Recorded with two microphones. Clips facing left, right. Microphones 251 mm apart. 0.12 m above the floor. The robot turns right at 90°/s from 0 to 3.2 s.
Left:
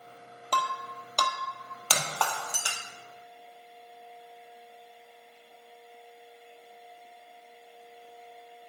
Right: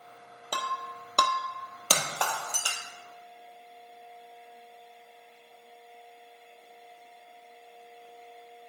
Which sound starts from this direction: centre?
Breaking glass, at 0.5 s.